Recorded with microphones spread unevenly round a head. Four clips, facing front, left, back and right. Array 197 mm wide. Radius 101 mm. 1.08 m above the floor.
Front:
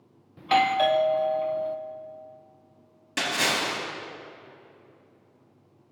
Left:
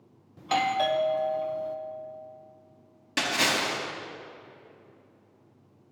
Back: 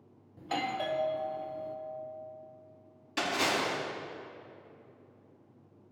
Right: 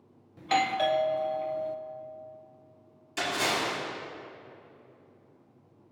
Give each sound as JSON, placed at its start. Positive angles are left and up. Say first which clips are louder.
{"t": 0.4, "sound": "a doorbell", "louder": "left 1 dB, front 12 dB", "azimuth_deg": 5, "distance_m": 0.5}
{"t": 3.2, "sound": "a splash", "louder": "left 2 dB, front 2 dB", "azimuth_deg": 60, "distance_m": 3.5}